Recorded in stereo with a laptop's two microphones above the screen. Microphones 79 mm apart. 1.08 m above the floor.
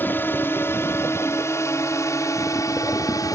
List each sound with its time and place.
0.0 s a drone: 25° left (ahead or behind); by 3.4 s 50° left (ahead or behind)